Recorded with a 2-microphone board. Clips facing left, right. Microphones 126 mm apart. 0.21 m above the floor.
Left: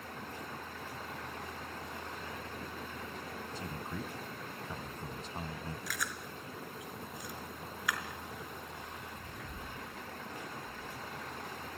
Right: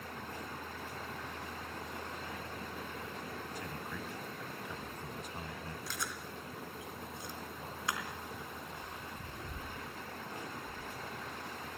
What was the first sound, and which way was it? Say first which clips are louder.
A man speaking: left 2 dB; 30° left (ahead or behind).